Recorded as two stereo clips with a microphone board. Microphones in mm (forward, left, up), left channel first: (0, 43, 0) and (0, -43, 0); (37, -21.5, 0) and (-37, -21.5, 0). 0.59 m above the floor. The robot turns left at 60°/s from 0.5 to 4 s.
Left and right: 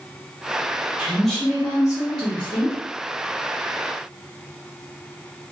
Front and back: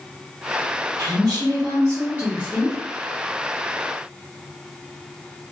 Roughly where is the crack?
No crack in this recording.